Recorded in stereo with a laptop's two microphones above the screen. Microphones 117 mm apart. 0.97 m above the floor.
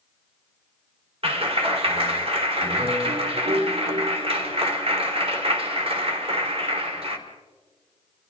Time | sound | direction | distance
1.2 | a clap | 50° right (ahead or behind) | 1.9 m